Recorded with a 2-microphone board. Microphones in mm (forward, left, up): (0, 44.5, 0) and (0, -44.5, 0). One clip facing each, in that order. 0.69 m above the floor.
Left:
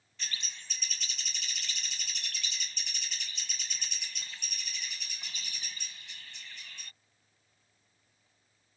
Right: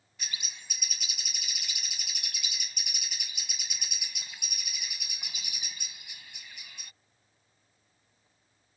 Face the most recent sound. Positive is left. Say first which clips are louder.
# even
turn(degrees=-10)  # may be behind; listen again after turning